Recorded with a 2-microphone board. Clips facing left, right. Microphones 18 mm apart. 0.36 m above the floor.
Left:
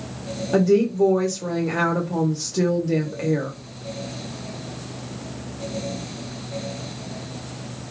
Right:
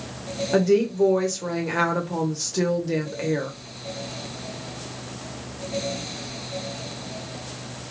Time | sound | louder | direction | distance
0.5 | a woman speaking | left 2 dB | 15° right (ahead or behind) | 0.9 m